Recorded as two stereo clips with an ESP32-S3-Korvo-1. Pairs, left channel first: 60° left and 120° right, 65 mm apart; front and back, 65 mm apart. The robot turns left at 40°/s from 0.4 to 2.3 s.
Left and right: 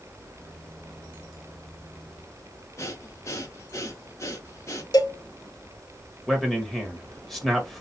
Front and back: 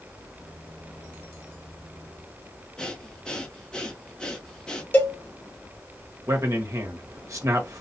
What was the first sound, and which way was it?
Breathing, 75° left.